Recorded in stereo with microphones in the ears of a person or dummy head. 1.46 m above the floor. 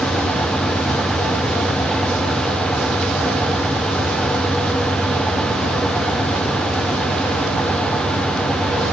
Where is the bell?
No bell in this recording.